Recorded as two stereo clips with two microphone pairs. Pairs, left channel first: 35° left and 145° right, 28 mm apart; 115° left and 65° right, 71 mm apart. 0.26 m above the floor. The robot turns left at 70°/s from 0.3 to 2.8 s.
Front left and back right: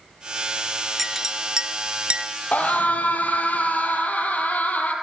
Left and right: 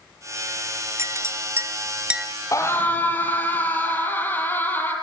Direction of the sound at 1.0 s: 60° right.